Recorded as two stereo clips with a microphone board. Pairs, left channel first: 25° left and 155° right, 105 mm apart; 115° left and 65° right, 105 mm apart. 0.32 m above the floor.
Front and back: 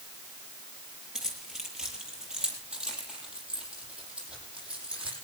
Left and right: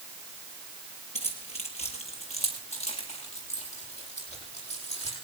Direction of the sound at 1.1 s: 120° left.